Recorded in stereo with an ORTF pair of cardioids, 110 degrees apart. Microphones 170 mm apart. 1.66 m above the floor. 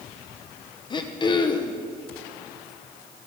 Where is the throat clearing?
25° left, 1.3 m.